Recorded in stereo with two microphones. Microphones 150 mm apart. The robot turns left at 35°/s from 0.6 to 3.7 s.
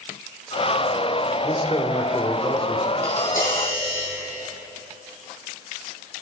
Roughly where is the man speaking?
Ahead left.